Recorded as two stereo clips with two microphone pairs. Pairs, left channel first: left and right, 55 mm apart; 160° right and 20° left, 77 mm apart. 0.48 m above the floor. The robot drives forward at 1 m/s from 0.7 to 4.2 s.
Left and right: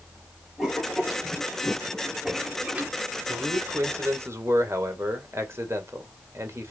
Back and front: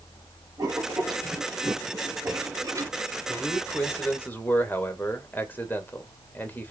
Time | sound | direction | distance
0.6 | writing | 15° right | 5 m
3.3 | a man speaking | 70° right | 2 m